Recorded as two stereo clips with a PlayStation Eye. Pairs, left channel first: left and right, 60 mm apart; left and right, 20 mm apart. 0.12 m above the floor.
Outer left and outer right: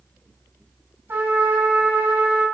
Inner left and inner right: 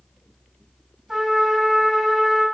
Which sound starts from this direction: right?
A trumpet, at 1.1 s.